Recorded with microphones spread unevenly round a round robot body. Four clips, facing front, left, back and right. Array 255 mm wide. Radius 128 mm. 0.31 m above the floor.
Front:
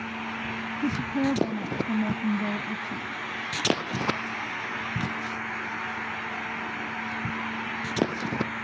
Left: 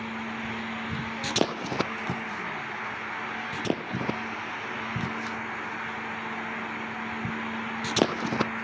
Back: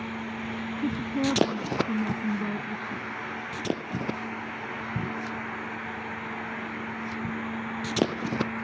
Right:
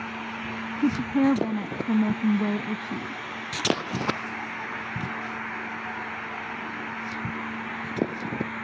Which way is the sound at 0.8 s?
95° right.